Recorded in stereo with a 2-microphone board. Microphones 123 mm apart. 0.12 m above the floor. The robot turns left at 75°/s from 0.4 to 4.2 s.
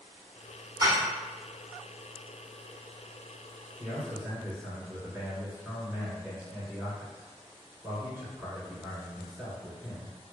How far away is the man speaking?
About 1.1 m.